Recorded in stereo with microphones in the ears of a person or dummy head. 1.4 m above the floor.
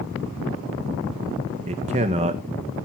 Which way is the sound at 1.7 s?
25° right (ahead or behind).